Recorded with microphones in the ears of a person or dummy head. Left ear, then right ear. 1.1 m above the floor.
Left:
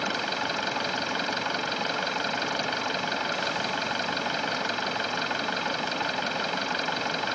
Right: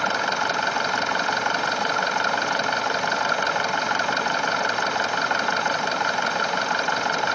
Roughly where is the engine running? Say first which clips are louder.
Right 6 dB; right.